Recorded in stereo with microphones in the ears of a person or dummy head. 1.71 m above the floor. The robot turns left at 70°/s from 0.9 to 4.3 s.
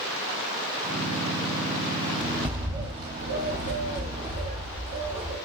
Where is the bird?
10° right (ahead or behind), 0.8 m; by 5.4 s 30° right (ahead or behind), 0.8 m.